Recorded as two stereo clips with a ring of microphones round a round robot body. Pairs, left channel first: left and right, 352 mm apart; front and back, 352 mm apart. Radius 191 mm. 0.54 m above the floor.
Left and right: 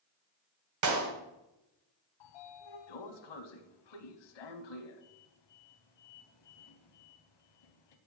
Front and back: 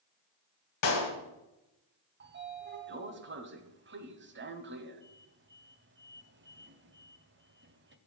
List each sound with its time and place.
0.8 s a clap: 50° right, 2 m
2.2 s a sliding door: 120° left, 1.0 m